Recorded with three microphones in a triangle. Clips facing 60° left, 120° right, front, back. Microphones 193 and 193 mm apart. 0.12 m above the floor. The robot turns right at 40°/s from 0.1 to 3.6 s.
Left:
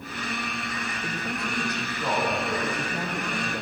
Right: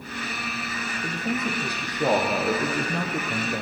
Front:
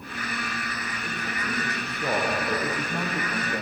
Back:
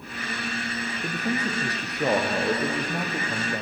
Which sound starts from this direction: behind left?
A man speaking, at 1.0 s.